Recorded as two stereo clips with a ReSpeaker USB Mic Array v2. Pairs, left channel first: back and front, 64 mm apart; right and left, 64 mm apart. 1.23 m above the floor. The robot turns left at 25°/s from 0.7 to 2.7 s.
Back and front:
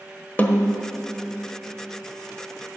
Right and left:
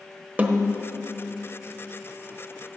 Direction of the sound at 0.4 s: 135° left.